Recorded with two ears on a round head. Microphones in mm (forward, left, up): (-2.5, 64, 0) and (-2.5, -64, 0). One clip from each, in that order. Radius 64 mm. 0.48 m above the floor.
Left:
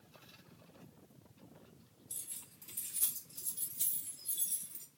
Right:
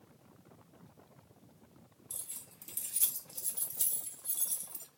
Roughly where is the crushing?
I don't hear crushing.